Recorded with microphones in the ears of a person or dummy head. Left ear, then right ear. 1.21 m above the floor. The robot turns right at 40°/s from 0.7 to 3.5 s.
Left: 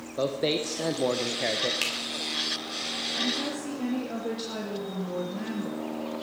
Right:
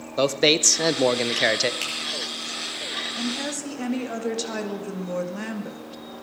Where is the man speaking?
105° right, 0.7 m; by 1.7 s 65° right, 0.7 m.